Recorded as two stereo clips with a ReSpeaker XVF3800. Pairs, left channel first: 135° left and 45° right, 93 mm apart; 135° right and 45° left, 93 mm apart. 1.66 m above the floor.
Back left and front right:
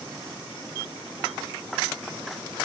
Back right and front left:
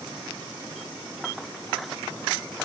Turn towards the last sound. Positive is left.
No sound to turn to.